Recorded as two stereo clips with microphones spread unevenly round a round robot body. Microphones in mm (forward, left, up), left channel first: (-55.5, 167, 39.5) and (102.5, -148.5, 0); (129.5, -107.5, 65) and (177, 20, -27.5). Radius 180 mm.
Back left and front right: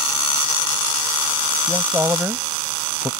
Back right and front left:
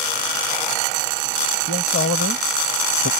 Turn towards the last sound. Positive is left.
turn(degrees=-150)